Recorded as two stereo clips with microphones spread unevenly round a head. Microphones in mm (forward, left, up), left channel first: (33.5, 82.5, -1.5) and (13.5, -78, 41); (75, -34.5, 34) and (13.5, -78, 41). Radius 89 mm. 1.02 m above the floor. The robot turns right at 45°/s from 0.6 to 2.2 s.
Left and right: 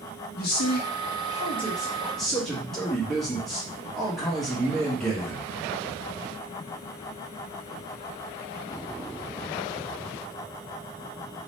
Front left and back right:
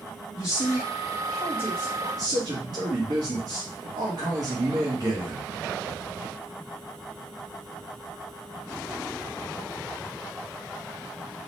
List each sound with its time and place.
0.4 s a man speaking: 95° left, 1.2 m; by 5.5 s 165° left, 1.2 m